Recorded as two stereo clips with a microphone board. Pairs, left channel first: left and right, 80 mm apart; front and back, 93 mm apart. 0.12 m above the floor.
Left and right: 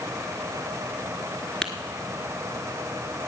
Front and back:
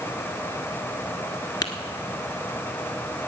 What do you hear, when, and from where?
1.6 s tapping: 10° left, 1.1 m